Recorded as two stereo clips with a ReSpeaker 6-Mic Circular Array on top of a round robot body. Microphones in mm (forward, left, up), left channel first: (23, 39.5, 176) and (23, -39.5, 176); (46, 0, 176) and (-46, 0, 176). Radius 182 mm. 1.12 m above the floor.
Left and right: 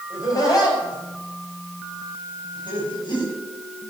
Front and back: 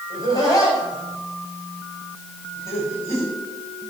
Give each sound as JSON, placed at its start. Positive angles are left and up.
{"t": 0.1, "sound": "laughter", "azimuth_deg": 45, "distance_m": 5.5}